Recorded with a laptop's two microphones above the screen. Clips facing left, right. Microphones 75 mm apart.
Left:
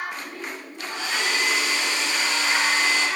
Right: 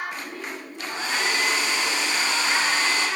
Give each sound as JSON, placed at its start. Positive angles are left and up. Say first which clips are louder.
{"t": 0.9, "sound": "a hair dryer", "louder": "even", "side_deg": -35, "distance_m": 1.2}